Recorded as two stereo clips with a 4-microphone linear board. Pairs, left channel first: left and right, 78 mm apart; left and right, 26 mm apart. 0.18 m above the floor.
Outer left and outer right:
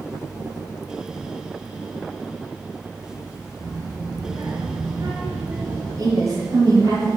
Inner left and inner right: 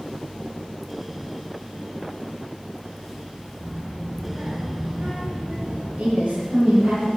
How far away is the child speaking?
About 3 m.